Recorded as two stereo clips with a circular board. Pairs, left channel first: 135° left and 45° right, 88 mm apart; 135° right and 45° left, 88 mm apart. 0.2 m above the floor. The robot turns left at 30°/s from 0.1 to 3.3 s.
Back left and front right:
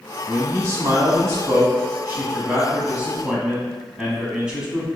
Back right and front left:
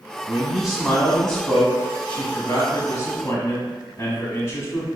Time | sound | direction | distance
0.3 | a man speaking | 25° right | 1.1 m